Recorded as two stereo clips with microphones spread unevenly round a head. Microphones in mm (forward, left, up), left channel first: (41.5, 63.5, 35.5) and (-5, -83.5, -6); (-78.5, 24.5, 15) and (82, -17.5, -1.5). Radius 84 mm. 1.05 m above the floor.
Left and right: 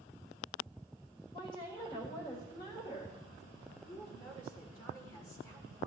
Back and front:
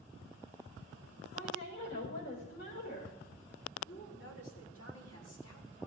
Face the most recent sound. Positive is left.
turn(degrees=150)